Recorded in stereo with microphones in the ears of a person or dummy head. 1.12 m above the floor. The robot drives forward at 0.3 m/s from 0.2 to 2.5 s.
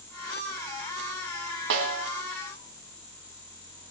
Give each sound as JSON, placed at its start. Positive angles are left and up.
{"t": 1.7, "sound": "a snare drum", "side_deg": -65, "distance_m": 2.5}